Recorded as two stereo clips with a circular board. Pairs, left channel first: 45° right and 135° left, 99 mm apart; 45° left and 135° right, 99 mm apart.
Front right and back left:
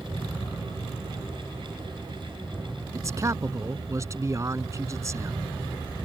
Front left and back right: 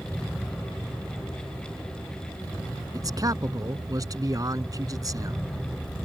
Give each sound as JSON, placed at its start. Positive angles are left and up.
{"t": 2.9, "sound": "a man speaking", "azimuth_deg": -175}